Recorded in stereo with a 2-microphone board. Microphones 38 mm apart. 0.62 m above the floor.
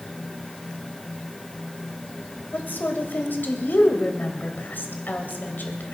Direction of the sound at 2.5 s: 55° left (ahead or behind).